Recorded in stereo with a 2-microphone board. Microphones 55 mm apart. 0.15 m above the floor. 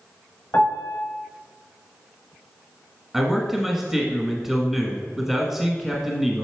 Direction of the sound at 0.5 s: 40° left (ahead or behind).